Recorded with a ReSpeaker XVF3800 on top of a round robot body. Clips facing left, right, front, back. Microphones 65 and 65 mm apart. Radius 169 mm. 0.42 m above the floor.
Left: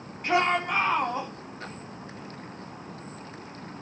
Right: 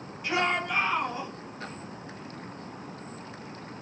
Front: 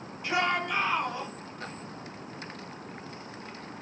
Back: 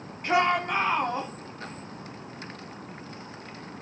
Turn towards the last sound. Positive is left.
turn(degrees=125)